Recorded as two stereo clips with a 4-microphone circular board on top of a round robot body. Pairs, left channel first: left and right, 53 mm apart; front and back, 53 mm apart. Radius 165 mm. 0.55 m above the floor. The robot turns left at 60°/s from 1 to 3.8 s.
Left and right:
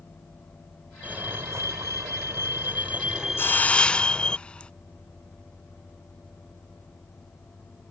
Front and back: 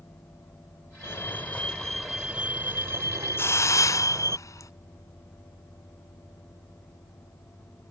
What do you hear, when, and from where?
1.0 s a fire alarm: 30° right; by 4.4 s 160° left
3.4 s a hiss: 45° left; by 4.7 s 20° left